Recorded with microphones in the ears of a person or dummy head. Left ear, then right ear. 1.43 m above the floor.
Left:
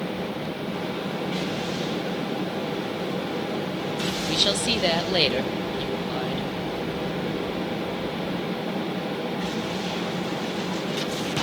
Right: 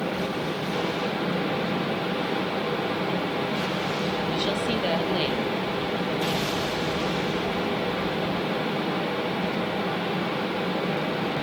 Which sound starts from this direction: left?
A woman speaking, at 4.3 s.